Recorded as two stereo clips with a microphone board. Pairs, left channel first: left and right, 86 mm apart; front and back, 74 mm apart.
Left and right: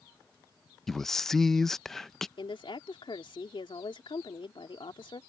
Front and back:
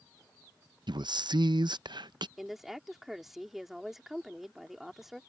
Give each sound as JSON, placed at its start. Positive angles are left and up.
{"t": 0.9, "sound": "a man speaking", "azimuth_deg": 175}
{"t": 2.4, "sound": "a woman speaking", "azimuth_deg": 95}